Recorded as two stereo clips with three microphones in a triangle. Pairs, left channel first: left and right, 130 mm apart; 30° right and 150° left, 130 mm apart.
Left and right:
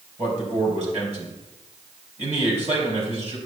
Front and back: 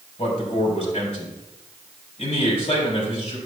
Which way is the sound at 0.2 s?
65° right.